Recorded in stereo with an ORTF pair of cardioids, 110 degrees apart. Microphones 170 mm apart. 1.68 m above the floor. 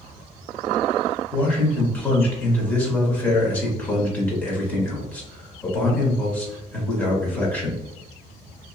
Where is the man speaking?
10° left, 1.4 m.